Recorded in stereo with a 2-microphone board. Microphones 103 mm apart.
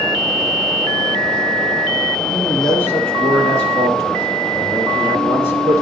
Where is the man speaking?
20° left (ahead or behind), 3.5 m; by 5.8 s 30° right (ahead or behind), 2.0 m.